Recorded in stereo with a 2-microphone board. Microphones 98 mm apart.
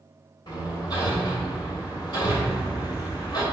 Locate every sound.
0.5 s hammering: 55° left (ahead or behind), 2.5 m